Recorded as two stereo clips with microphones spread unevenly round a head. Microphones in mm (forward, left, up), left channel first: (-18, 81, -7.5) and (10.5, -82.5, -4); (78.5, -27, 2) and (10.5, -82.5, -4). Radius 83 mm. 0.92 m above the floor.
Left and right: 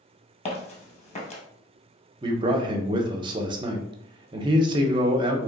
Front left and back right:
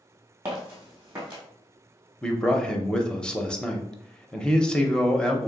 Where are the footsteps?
145° left, 1.6 m.